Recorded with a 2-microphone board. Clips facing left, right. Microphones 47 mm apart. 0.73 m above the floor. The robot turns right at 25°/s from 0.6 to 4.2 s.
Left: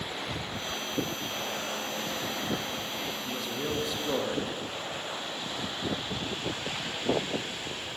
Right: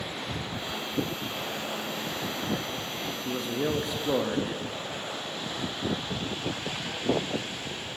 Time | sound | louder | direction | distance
3.2 | a man speaking | right 7 dB | 25° right (ahead or behind) | 0.6 m